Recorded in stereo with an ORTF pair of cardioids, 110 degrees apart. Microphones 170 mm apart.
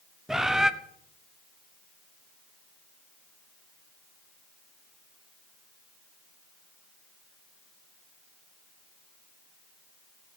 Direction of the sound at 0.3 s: 5° right.